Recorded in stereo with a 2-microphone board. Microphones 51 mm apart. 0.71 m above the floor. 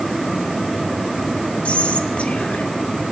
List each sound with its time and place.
1.6 s whispering: 25° left (ahead or behind), 1.7 m